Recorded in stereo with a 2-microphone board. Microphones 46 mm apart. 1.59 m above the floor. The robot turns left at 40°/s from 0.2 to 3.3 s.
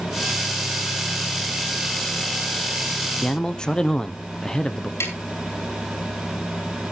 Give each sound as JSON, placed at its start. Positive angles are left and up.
{"t": 3.2, "sound": "a man speaking", "side_deg": 20, "distance_m": 1.0}
{"t": 5.0, "sound": "tapping", "side_deg": 70, "distance_m": 4.0}